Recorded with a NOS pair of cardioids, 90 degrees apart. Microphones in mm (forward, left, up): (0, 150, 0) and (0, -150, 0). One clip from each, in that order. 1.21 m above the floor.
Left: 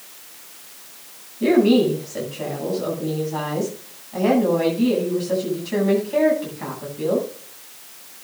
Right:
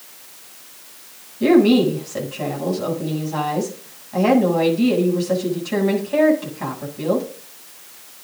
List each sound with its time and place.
1.4 s a woman speaking: 30° right, 8.5 m